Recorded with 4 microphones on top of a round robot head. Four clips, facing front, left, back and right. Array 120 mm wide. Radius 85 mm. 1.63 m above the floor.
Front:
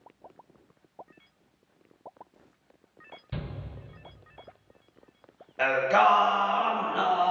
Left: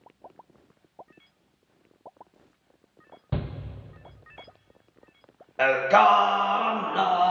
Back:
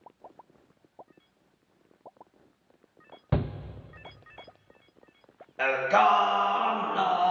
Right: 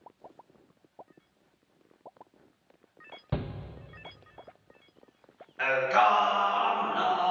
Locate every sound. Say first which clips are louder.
3.3 s a shout: left 2 dB, back 9 dB; 175° right, 0.7 m
5.6 s singing: left 5 dB, front 1 dB; 105° left, 1.8 m